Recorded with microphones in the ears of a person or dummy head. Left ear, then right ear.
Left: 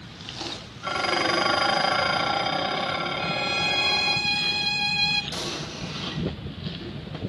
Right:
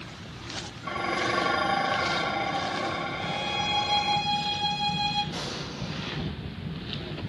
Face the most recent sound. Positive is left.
turn(degrees=70)  # may be behind; listen again after turning